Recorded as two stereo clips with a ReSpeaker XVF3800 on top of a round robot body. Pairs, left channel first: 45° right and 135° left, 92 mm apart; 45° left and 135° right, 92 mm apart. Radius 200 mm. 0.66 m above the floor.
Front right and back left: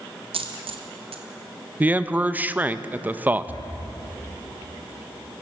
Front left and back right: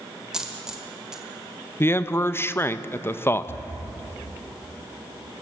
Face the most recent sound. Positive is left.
turn(degrees=-10)